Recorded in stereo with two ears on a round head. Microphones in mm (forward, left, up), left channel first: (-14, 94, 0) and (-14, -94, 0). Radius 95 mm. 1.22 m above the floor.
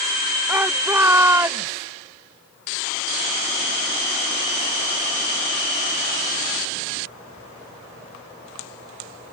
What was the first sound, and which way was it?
A shout, 10° right (ahead or behind).